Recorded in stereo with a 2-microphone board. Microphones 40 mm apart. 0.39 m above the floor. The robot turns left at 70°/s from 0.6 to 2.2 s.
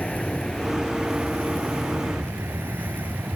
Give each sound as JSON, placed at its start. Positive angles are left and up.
{"t": 0.0, "sound": "an aircraft", "azimuth_deg": 15}